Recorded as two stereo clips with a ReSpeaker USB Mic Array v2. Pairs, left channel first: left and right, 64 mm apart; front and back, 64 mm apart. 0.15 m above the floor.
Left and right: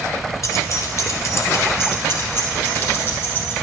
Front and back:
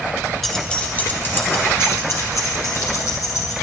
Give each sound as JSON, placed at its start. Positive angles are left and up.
{"t": 0.4, "sound": "keys jangling", "azimuth_deg": 85, "distance_m": 1.6}